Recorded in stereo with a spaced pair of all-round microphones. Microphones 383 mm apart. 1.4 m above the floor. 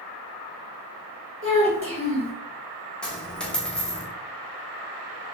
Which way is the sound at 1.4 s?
30° right (ahead or behind).